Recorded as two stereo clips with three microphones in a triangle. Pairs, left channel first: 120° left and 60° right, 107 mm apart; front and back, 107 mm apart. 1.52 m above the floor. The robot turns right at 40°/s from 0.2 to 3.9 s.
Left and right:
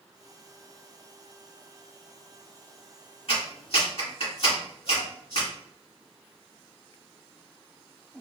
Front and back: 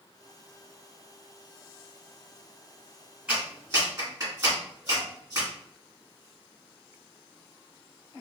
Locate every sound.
3.3 s a clap: 100° left, 1.7 m; by 5.5 s 125° left, 1.7 m